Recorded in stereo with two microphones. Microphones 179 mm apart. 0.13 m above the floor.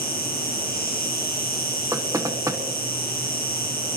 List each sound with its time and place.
0.0 s an insect: 55° left (ahead or behind), 1.8 m
1.9 s knocking: 20° right (ahead or behind), 1.3 m